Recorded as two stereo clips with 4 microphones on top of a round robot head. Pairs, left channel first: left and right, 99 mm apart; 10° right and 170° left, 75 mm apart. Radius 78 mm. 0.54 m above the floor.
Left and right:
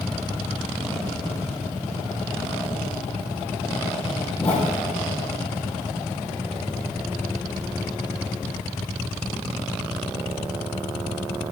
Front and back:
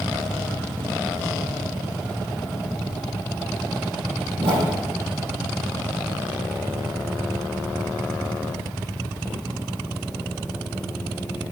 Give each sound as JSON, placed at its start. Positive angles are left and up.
{"t": 4.4, "sound": "a whoosh", "azimuth_deg": 165, "distance_m": 5.0}